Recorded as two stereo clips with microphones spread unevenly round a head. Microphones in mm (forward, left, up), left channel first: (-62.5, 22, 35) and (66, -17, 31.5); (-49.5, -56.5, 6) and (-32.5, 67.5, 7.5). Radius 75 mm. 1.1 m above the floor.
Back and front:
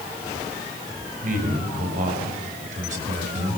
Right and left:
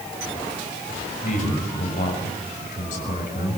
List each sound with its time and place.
1.2 s a man speaking: 50° right, 6 m; by 3.6 s 55° right, 7 m